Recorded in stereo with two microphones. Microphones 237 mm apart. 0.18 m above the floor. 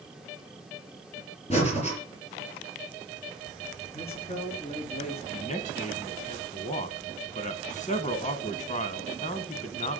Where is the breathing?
25° left (ahead or behind), 4 m.